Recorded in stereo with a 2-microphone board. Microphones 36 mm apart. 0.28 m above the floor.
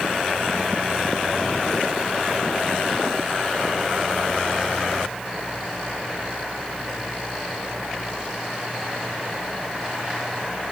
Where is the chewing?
No chewing in this recording.